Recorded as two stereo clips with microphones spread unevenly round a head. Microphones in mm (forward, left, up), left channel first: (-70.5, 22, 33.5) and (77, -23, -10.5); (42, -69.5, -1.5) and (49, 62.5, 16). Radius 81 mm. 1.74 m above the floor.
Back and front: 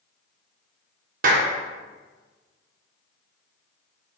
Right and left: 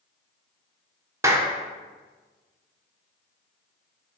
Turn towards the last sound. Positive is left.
turn(degrees=25)